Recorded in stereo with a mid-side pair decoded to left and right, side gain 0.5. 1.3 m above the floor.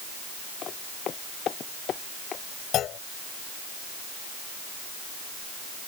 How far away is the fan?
No fan in this recording.